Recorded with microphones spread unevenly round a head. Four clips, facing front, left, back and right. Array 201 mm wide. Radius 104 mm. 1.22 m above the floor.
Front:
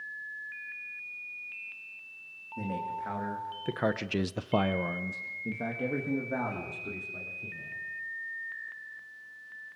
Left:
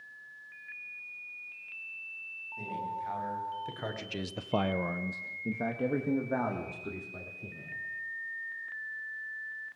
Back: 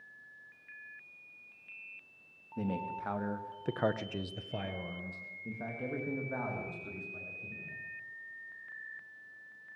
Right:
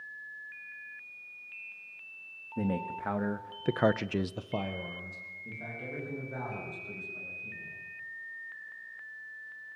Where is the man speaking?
95° right, 2.5 m; by 7.8 s 70° left, 5.5 m.